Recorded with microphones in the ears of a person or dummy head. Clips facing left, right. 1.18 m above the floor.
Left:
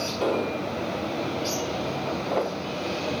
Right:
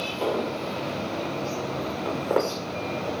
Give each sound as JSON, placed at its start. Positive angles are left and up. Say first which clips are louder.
{"t": 0.2, "sound": "an explosion", "louder": "left 1 dB", "side_deg": 5, "distance_m": 2.5}
{"t": 2.0, "sound": "footsteps", "louder": "right 4 dB", "side_deg": -65, "distance_m": 3.5}